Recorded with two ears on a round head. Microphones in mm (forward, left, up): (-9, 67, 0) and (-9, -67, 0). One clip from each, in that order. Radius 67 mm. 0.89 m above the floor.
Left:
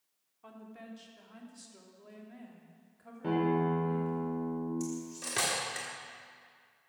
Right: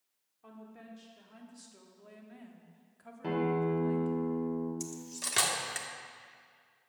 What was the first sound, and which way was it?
A woman speaking, 25° left (ahead or behind).